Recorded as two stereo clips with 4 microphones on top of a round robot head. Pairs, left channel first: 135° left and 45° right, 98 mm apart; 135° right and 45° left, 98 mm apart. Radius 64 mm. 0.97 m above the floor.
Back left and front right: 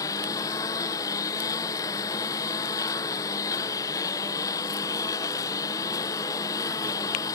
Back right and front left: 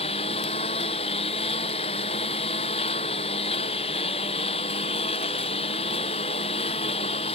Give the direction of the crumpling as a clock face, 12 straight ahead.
No crumpling in this recording.